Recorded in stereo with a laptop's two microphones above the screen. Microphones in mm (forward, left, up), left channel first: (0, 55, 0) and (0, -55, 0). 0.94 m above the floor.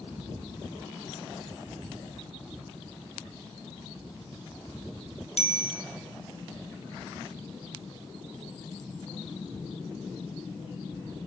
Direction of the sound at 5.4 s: 85° left.